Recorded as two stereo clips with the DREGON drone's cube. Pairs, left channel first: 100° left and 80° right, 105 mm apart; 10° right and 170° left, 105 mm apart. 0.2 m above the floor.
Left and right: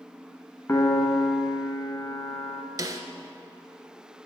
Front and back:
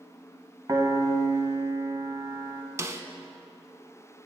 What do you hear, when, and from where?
0.7 s a piano: 145° left, 0.7 m
2.8 s a snare drum: 125° right, 0.5 m